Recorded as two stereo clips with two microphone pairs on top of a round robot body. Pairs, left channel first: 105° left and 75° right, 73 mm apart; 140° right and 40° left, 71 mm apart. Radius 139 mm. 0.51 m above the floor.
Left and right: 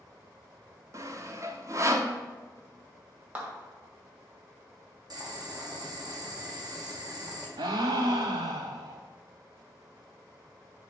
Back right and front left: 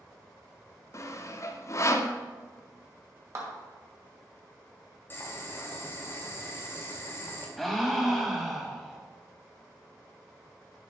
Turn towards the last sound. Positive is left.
turn(degrees=-50)